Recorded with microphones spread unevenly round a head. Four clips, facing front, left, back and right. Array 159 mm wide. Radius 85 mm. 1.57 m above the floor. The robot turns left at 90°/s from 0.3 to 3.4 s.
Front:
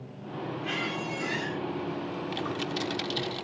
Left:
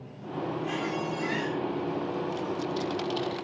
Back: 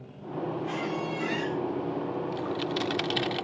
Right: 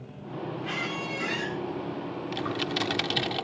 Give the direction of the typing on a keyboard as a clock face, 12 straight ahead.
1 o'clock.